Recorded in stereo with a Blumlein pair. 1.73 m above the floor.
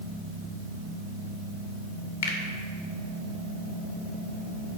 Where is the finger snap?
60° left, 1.8 m.